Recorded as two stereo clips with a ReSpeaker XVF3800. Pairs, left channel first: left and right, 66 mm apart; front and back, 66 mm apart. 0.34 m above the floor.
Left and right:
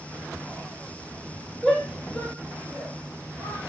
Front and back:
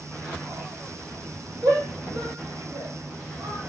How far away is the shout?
About 3.5 m.